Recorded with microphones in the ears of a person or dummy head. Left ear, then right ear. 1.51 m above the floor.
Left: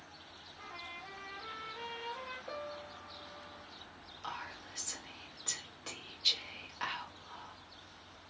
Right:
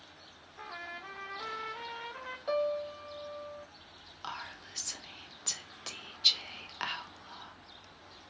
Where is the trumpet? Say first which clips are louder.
Right 4 dB; 65° right (ahead or behind), 0.9 m.